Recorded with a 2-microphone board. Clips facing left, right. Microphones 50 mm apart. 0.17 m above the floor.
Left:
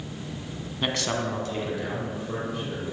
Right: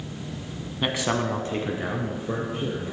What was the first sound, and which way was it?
A man speaking, 5° right (ahead or behind).